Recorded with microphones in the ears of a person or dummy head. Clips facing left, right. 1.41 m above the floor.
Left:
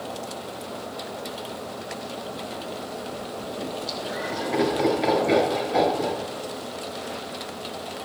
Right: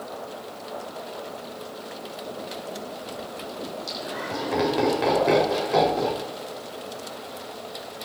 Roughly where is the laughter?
Right.